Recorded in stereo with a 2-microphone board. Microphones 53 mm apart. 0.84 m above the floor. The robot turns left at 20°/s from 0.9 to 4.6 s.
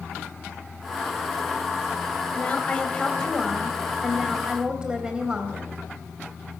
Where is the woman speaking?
30° left, 4 m; by 5.7 s 15° right, 4 m.